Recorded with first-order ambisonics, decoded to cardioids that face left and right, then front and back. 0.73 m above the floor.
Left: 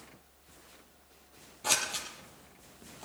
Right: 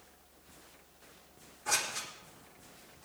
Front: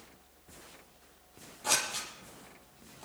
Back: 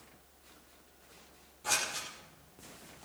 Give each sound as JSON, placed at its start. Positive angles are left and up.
{"t": 1.6, "sound": "scissors", "azimuth_deg": 75, "distance_m": 5.5}